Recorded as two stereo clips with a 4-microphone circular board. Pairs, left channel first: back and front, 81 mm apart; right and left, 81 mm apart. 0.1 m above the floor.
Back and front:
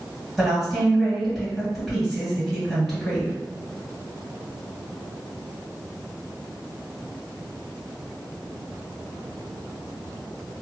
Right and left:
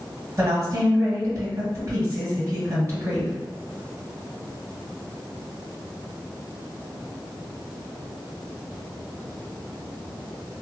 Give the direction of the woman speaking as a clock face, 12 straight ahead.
9 o'clock.